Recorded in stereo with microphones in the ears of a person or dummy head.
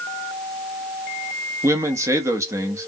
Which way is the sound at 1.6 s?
10° right (ahead or behind).